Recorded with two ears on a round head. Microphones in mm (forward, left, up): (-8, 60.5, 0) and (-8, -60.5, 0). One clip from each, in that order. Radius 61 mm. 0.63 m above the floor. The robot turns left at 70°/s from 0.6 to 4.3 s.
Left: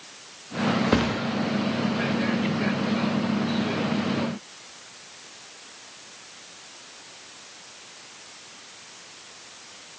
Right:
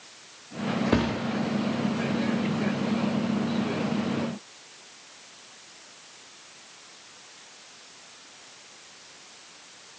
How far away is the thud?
About 0.8 m.